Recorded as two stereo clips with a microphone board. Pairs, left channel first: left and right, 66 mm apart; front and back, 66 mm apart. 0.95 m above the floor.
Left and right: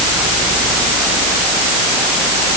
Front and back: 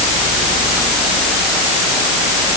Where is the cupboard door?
No cupboard door in this recording.